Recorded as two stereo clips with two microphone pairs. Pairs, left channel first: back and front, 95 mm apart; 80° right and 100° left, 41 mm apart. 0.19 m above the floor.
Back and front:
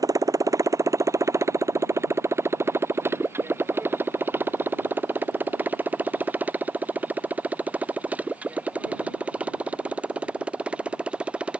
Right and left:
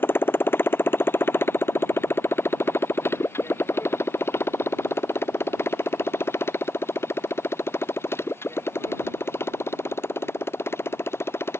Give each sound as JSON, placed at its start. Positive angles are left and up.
{"t": 0.0, "sound": "a motorcycle", "azimuth_deg": -55}